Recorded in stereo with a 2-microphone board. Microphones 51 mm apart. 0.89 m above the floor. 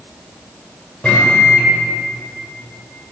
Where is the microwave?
20° left (ahead or behind), 2.5 m.